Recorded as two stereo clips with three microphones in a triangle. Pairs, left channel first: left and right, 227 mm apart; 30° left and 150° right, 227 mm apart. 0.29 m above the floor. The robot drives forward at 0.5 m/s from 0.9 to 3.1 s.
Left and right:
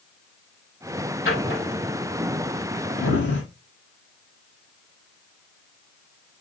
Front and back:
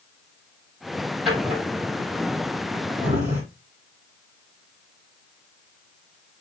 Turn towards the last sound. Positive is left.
turn(degrees=130)